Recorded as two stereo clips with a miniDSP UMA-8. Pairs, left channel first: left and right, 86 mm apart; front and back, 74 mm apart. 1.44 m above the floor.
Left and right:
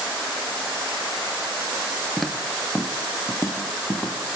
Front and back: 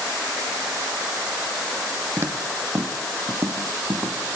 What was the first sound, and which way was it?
Footsteps, 175° right.